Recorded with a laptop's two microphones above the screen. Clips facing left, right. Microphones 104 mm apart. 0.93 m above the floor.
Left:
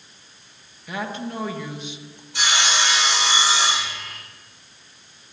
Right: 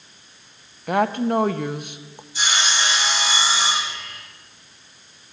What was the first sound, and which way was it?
A woman speaking, 55° right (ahead or behind).